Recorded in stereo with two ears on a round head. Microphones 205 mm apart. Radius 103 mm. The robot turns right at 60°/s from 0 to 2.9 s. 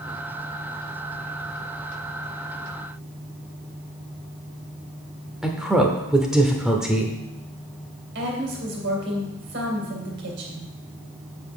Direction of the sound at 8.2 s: 50° right (ahead or behind).